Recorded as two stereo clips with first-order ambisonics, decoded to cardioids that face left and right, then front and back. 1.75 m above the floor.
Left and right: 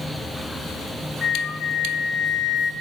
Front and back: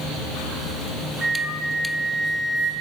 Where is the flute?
110° left, 1.6 m.